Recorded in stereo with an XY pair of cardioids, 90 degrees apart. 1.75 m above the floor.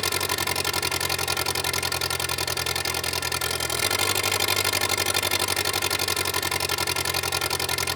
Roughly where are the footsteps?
I don't hear footsteps.